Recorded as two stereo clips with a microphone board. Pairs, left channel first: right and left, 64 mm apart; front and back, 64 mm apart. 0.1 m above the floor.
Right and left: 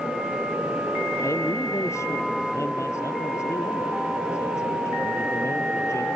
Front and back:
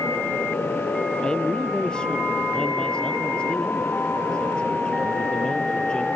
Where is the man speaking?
70° right.